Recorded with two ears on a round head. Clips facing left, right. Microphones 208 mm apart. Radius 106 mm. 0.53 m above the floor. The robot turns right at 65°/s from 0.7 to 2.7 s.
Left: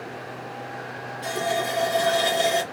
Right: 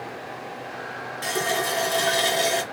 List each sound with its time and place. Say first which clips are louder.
1.2 s a running tap: even; 95° right, 1.4 m; by 2.6 s 5° right, 1.4 m